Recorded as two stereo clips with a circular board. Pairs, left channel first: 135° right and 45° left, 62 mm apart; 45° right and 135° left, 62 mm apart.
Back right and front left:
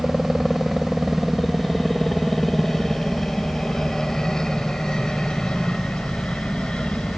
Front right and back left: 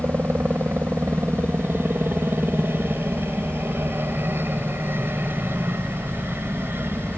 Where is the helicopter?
135° left; by 7.2 s 160° left.